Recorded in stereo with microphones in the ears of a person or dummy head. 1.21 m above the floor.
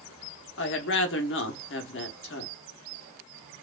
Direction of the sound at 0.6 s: 55° left (ahead or behind).